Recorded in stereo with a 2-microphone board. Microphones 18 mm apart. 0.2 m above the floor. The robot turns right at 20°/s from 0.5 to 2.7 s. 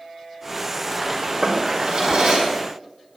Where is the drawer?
50° right (ahead or behind), 4 m; by 2.5 s 70° right (ahead or behind), 4 m.